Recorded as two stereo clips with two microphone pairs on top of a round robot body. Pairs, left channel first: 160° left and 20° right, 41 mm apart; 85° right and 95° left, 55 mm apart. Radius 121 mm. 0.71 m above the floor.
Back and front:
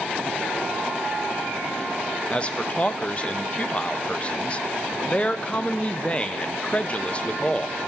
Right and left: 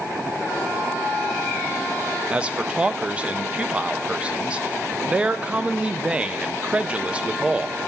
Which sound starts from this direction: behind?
A man speaking, at 2.3 s.